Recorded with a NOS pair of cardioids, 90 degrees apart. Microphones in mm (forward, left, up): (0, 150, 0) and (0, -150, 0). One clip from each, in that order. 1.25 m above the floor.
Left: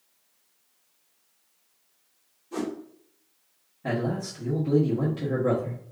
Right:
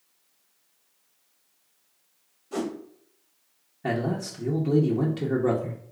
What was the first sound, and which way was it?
A whoosh, 35° right.